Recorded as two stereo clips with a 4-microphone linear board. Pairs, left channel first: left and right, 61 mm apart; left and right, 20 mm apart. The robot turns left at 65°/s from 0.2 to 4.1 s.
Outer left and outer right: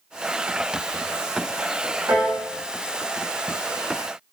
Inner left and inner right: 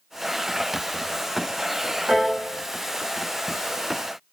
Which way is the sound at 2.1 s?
45° right (ahead or behind).